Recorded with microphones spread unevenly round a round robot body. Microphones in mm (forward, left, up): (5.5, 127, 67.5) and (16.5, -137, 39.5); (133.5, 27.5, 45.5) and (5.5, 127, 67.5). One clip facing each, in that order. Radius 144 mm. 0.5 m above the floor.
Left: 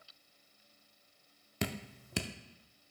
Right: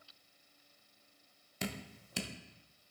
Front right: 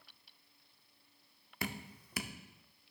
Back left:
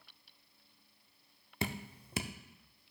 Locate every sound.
1.6 s dripping: 75° left, 0.8 m